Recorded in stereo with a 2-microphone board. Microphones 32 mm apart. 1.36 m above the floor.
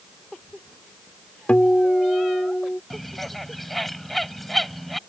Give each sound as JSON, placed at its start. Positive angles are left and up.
{"t": 1.5, "sound": "a guitar", "side_deg": 45}
{"t": 2.9, "sound": "a bird", "side_deg": 5}